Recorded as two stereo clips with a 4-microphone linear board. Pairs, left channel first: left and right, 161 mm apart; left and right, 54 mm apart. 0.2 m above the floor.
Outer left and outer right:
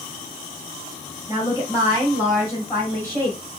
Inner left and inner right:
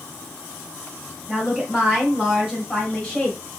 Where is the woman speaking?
25° right (ahead or behind), 1.5 m; by 3.4 s 15° left (ahead or behind), 1.4 m.